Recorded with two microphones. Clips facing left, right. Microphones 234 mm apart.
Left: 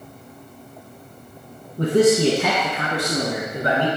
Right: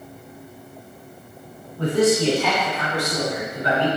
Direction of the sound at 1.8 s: 45° left (ahead or behind).